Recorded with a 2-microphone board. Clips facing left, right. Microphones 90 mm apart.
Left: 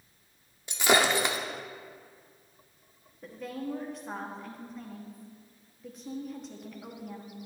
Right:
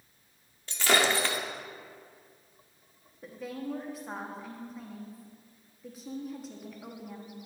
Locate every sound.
0.7 s breaking glass: 15° left (ahead or behind), 0.7 m
3.2 s a woman speaking: centre (ahead or behind), 0.8 m